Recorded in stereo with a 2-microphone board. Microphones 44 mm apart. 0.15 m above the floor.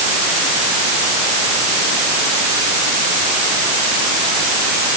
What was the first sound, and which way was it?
Only background noise.